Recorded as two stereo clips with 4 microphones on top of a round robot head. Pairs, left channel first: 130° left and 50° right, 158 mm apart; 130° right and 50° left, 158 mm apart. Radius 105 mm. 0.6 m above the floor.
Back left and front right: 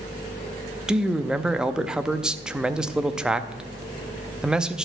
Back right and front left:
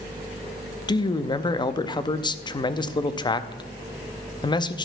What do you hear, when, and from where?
0.9 s a man speaking: 130° right, 0.6 m